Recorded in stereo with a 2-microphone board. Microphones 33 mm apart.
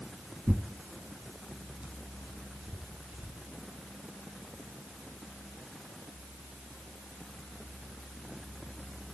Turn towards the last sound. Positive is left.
turn(degrees=-50)  # may be behind; listen again after turning